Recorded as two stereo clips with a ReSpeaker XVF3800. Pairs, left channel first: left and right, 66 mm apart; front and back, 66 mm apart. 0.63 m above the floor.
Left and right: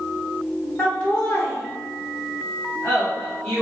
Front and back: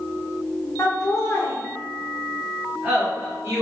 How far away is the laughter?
About 1.3 m.